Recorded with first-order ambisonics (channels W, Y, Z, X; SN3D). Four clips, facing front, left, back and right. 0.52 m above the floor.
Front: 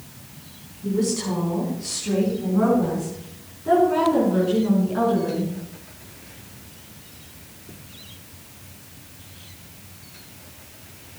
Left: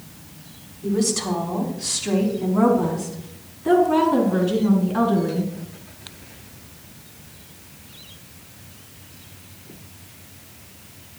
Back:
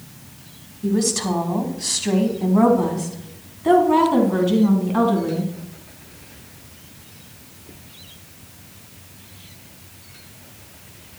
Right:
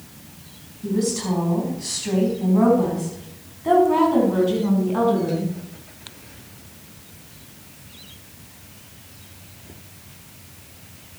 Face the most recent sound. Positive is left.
turn(degrees=-160)